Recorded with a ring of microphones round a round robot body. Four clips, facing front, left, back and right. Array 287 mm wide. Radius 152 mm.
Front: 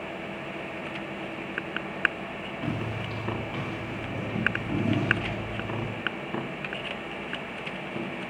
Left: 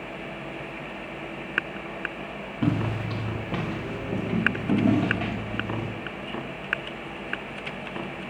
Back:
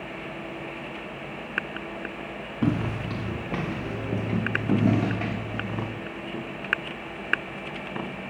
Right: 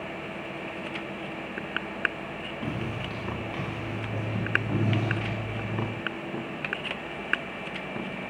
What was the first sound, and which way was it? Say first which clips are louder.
Footsteps: left 9 dB, back 8 dB; 145° left.